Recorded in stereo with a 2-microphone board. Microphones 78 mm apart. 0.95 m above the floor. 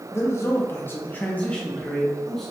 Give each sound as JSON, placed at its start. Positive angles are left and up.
{"t": 0.1, "sound": "a man speaking", "side_deg": 35, "distance_m": 0.7}